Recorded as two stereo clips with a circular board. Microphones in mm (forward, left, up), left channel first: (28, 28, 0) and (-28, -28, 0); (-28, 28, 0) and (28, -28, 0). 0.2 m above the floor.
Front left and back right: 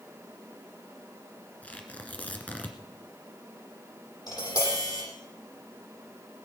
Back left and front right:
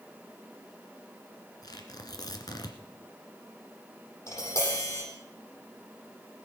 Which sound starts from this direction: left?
Tapping, at 4.3 s.